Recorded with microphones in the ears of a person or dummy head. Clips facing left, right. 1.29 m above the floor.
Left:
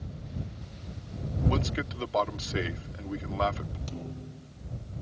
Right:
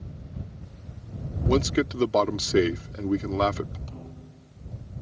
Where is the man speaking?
55° right (ahead or behind).